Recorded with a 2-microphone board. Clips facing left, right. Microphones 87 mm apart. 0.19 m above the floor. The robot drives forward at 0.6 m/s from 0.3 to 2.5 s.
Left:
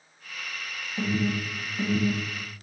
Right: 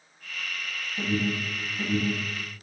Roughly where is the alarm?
Centre.